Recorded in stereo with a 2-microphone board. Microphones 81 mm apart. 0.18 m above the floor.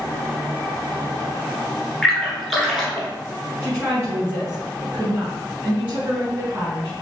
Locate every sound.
2.0 s a splash: centre (ahead or behind), 1.6 m
3.6 s a woman speaking: 25° right (ahead or behind), 2 m